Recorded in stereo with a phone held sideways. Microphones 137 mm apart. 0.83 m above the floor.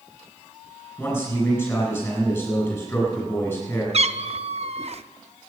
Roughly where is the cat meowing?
Right.